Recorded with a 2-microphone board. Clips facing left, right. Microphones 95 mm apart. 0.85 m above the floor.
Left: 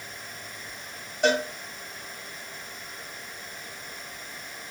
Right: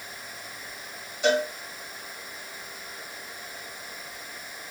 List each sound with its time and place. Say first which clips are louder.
1.2 s a cowbell: even; 60° left (ahead or behind), 1.8 m